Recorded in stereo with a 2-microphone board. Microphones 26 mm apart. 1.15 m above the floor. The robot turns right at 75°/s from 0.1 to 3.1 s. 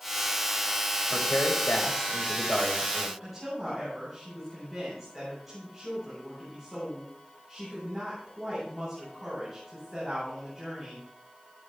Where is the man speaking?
50° left, 5 m; by 3.1 s 165° right, 5 m.